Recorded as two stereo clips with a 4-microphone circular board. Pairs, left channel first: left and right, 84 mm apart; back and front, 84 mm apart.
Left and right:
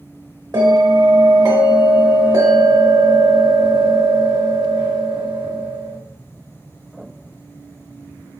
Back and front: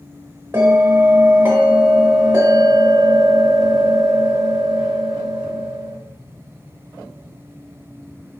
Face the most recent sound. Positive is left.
turn(degrees=-55)